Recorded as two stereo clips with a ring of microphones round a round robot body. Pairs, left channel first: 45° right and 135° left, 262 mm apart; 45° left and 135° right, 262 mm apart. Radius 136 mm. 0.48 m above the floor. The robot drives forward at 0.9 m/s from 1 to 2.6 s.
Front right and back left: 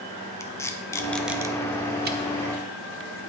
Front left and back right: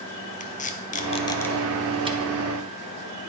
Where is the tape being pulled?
25° left, 0.8 m; by 2.2 s 165° left, 1.0 m.